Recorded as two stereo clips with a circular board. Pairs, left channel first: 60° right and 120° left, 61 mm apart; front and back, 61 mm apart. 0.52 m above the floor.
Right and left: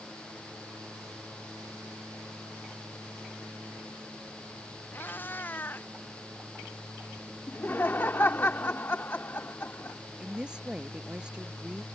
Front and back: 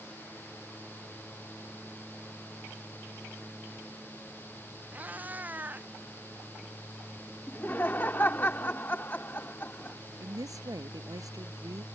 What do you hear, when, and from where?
4.9 s a cat meowing: 115° right
7.5 s laughter: 30° right
10.2 s a woman speaking: 165° right